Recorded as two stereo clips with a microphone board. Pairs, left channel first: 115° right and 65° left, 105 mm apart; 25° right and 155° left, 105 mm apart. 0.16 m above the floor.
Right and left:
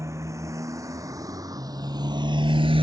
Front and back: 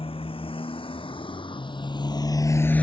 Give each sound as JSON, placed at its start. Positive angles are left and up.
{"t": 0.0, "sound": "a motorcycle", "azimuth_deg": 5}